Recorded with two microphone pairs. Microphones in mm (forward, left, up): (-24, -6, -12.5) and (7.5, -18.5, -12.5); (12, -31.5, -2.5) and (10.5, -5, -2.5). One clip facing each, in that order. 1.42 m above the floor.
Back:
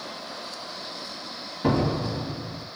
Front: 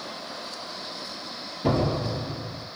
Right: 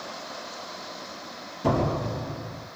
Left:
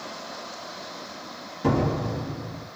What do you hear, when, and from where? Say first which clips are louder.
1.6 s a door slam: back 1 dB, left 1 dB; 160° left, 1.3 m